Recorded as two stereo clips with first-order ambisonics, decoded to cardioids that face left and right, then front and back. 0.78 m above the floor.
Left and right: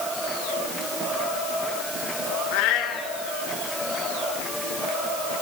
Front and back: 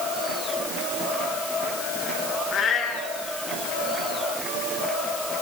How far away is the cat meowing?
About 3.5 m.